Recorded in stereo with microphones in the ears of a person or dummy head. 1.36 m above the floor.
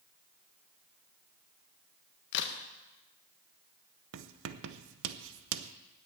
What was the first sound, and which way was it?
A crack, 65° left (ahead or behind).